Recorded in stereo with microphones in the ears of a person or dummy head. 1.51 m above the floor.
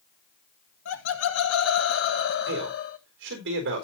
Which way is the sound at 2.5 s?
65° right (ahead or behind).